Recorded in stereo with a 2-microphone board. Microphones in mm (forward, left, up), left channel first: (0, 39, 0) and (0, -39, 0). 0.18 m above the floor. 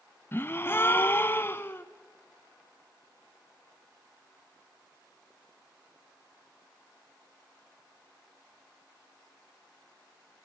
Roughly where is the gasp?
Left.